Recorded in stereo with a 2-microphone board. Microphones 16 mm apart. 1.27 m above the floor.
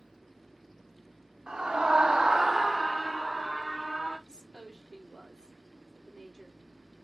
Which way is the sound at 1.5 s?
55° right (ahead or behind).